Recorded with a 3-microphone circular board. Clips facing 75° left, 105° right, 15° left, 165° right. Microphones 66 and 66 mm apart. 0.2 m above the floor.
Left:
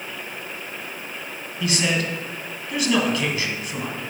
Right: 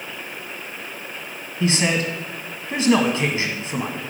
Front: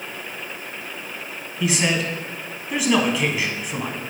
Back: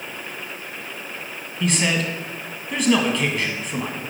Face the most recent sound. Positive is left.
turn(degrees=-65)